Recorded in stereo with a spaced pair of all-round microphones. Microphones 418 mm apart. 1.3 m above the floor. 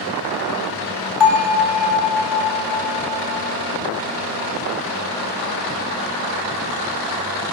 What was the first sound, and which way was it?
A bell, 80° left.